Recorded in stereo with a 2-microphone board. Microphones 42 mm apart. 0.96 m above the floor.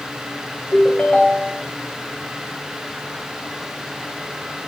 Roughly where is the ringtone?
Left.